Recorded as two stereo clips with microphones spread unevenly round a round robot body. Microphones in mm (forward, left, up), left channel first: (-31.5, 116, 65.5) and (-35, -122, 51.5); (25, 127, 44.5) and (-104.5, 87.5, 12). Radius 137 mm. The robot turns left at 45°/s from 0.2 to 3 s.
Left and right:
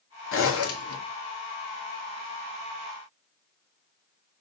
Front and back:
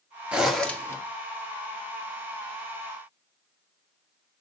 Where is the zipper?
120° left, 1.8 m; by 1.0 s 90° left, 1.8 m.